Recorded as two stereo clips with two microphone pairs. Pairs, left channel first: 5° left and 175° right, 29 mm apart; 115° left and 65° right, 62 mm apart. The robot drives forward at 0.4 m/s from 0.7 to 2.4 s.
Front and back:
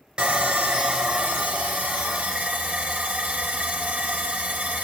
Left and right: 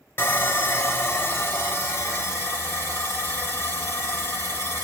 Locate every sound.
0.2 s sawing: 145° left, 0.6 m; by 4.8 s 165° left, 1.1 m